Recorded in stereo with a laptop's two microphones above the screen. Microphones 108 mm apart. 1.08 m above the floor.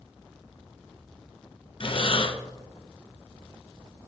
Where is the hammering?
I don't hear hammering.